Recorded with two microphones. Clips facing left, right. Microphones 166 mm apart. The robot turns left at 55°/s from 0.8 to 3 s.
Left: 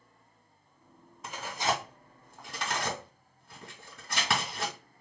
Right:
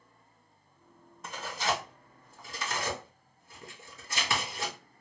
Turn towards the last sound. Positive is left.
turn(degrees=75)  # may be behind; listen again after turning